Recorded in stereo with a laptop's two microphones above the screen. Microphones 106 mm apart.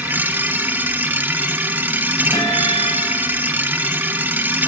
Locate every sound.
0.0 s a machine running: 15° right (ahead or behind), 0.9 m
2.3 s a guitar: 40° left (ahead or behind), 5 m